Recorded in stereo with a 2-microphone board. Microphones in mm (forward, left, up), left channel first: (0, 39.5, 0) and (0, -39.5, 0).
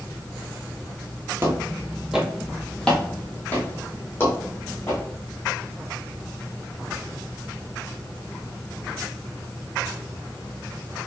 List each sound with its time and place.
1.4 s footsteps: 30° right (ahead or behind), 0.9 m; by 5.0 s 35° left (ahead or behind), 2 m